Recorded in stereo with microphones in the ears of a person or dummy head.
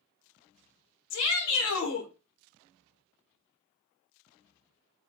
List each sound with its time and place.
1.1 s a shout: 80° left, 1.6 m